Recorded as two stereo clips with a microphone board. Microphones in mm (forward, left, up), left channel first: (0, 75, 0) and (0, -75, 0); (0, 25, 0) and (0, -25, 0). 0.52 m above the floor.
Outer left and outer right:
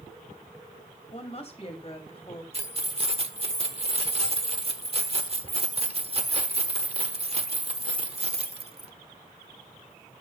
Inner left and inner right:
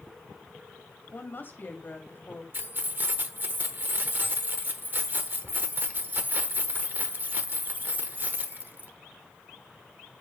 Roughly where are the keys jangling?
Right.